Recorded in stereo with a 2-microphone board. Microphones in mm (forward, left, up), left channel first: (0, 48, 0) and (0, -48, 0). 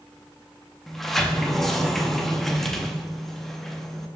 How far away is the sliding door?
About 0.7 m.